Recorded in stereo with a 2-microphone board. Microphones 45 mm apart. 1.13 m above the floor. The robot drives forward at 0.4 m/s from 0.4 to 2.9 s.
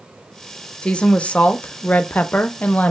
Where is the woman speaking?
25° left (ahead or behind), 0.7 m; by 2.9 s 35° left (ahead or behind), 0.5 m.